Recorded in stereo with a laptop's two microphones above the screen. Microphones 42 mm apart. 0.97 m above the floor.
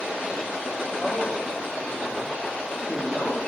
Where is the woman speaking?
25° left (ahead or behind), 2 m.